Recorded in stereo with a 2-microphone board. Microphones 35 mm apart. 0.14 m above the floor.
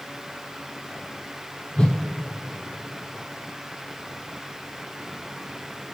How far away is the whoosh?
About 1.2 m.